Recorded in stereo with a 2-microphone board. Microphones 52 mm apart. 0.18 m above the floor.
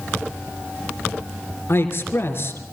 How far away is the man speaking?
About 3.5 m.